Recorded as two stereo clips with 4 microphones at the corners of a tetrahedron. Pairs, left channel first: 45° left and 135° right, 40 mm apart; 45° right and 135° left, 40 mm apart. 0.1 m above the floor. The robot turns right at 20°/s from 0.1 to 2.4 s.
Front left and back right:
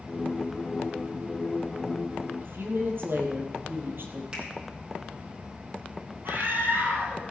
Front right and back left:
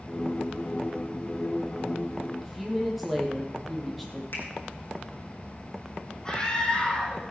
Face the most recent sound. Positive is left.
turn(degrees=-115)